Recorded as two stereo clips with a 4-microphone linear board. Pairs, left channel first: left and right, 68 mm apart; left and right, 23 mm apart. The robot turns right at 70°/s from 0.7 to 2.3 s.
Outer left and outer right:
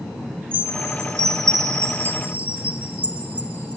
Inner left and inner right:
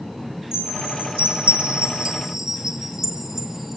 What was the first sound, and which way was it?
A chime, 35° right (ahead or behind).